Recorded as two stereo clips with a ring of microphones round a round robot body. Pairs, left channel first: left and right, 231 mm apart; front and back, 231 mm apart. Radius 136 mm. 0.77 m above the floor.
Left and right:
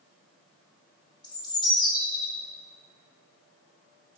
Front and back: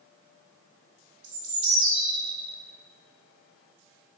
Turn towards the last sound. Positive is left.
turn(degrees=160)